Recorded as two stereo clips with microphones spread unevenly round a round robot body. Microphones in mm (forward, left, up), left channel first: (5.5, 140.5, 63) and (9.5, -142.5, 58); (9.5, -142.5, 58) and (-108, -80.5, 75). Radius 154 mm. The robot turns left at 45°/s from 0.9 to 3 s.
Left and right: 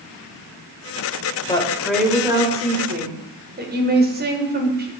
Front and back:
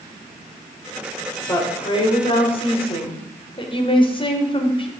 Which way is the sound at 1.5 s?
20° left.